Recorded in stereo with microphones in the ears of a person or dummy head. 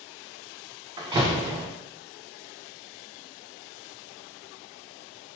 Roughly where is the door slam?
Right.